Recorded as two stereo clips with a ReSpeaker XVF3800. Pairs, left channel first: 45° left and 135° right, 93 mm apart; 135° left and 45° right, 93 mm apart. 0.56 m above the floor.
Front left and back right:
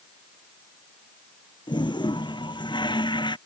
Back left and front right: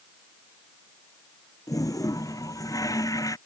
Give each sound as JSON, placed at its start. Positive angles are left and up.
{"t": 1.7, "sound": "a toilet flushing", "azimuth_deg": 85}